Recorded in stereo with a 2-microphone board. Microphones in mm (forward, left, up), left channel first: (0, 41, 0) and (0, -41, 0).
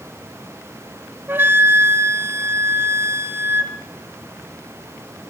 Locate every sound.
1.3 s a flute: 25° right (ahead or behind), 1.6 m